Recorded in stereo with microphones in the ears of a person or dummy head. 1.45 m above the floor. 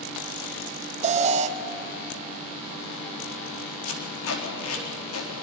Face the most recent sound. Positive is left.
turn(degrees=85)